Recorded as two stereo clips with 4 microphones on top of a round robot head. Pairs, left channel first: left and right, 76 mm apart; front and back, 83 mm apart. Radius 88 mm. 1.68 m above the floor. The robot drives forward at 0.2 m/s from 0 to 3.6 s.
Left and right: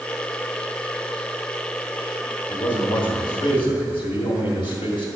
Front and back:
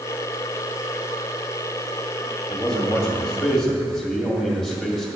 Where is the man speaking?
85° left, 2 m; by 5.1 s 90° left, 2 m.